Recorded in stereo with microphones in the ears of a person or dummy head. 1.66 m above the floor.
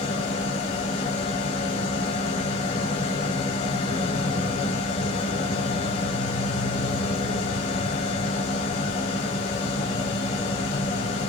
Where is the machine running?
30° left (ahead or behind), 0.8 m.